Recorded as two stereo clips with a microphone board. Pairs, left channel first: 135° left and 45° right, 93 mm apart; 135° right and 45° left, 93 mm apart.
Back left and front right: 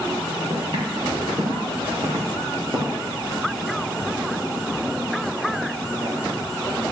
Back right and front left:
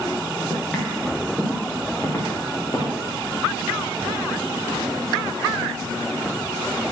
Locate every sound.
0.5 s footsteps: 50° right, 3.5 m; by 3.0 s 85° right, 3.5 m